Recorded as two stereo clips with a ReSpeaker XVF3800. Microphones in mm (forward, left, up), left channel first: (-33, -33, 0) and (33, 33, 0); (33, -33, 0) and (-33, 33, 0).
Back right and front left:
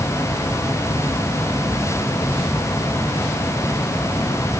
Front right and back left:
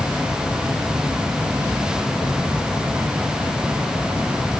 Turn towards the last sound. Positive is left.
No sound to turn to.